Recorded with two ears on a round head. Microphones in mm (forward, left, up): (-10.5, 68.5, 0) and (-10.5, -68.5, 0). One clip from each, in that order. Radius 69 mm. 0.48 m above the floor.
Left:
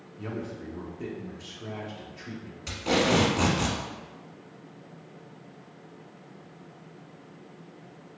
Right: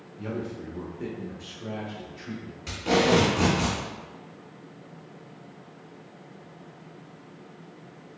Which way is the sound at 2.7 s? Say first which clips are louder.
Right 2 dB; 15° left (ahead or behind).